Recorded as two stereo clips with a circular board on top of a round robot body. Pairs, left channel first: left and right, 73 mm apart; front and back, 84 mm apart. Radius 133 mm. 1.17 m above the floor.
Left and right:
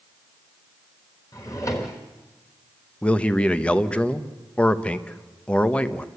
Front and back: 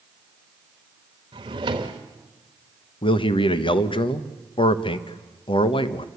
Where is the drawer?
145° left, 1.0 m.